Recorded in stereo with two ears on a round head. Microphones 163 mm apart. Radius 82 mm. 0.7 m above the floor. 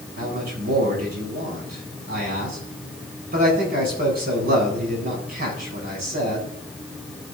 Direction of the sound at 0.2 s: 55° right (ahead or behind).